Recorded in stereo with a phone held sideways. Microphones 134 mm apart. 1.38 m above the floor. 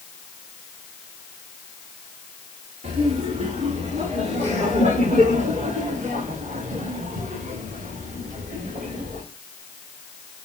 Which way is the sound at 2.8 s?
70° right (ahead or behind).